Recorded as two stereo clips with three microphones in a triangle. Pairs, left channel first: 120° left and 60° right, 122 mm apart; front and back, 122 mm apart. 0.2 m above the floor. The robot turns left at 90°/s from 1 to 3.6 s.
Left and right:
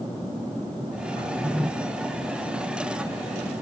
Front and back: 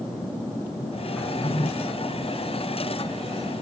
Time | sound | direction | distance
1.2 | a drawer | 80° left | 3.5 m